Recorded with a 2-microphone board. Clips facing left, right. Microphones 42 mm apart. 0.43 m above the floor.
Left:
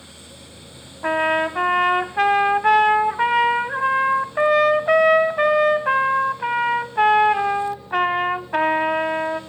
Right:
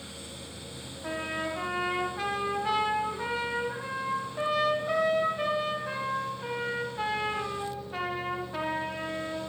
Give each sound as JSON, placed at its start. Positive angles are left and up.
{"t": 1.0, "sound": "a trumpet", "side_deg": 75, "distance_m": 1.0}